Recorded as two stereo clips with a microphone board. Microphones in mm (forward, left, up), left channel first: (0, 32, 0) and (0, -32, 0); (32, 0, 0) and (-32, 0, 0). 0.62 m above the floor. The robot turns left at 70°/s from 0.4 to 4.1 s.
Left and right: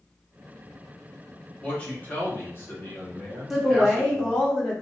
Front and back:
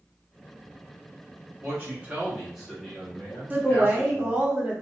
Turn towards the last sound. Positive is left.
turn(degrees=140)